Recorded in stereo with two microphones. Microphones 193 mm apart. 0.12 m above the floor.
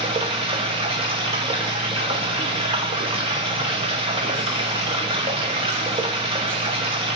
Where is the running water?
30° right (ahead or behind), 1.4 m.